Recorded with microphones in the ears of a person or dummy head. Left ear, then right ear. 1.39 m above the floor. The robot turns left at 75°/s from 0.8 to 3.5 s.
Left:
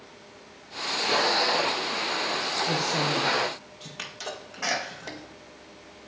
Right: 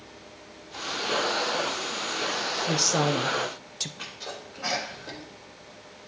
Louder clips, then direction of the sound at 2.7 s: Right 4 dB; 25° right.